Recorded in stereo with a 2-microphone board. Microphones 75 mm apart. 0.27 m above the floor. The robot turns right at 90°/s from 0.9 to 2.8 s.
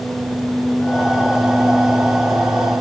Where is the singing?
No singing in this recording.